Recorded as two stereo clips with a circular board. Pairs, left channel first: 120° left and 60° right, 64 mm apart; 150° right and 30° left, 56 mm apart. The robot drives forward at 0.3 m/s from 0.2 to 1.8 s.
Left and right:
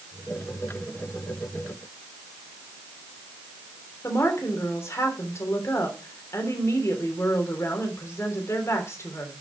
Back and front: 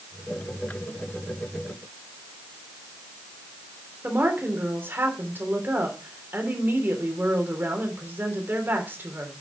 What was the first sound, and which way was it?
A woman speaking, 80° left.